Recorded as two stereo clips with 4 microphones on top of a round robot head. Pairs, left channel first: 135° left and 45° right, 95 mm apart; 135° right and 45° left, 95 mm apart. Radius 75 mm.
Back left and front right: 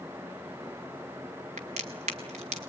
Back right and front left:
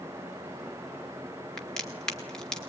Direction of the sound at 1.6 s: 55° right.